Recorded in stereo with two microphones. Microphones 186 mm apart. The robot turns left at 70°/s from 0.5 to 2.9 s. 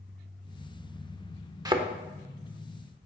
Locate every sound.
1.6 s a thud: 20° right (ahead or behind), 0.7 m; by 1.9 s 30° right (ahead or behind), 0.7 m